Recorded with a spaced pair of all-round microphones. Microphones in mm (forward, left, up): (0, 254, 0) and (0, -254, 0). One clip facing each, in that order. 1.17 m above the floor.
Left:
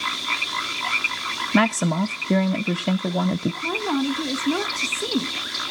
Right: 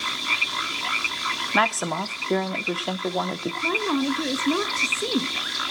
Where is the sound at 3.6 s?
5° left (ahead or behind), 0.9 m.